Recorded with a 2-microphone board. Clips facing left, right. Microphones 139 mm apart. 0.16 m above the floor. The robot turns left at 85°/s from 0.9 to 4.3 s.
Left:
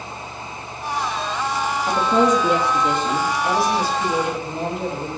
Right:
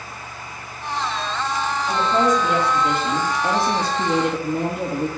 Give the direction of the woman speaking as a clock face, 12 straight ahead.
9 o'clock.